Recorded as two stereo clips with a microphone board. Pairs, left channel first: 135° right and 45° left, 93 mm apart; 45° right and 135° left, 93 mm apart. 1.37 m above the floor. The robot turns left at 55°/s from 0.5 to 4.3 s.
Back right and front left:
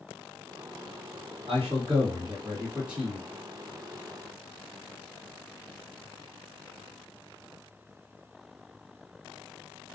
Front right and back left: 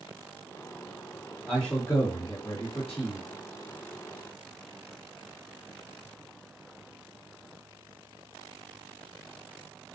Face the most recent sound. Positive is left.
turn(degrees=-110)